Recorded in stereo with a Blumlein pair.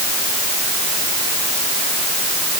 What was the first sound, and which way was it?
Only background noise.